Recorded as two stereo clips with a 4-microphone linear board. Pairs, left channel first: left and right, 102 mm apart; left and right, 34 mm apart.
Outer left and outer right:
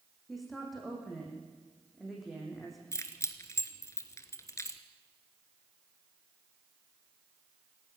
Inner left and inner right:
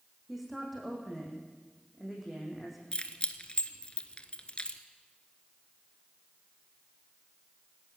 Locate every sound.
0.3 s a woman speaking: centre (ahead or behind), 7.5 m
2.9 s keys jangling: 30° left (ahead or behind), 1.4 m